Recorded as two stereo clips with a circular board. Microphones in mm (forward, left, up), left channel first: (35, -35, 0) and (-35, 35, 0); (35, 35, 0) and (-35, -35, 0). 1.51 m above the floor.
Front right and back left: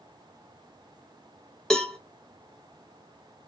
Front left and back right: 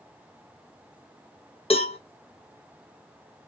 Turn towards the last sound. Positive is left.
turn(degrees=40)